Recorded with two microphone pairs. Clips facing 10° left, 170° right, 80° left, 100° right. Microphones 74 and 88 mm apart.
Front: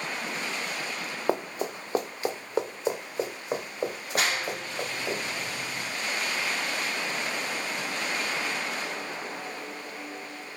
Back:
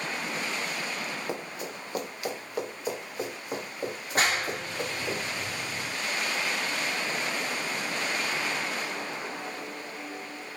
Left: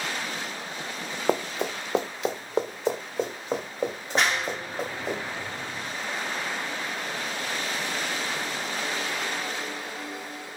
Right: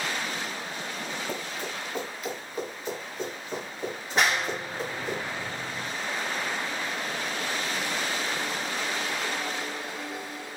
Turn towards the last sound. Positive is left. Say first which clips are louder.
# back 2 dB, even
turn(degrees=175)